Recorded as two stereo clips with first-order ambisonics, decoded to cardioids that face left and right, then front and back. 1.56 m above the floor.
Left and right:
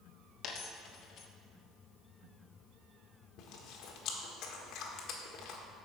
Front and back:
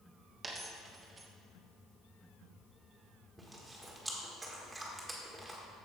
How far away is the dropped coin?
About 1.1 m.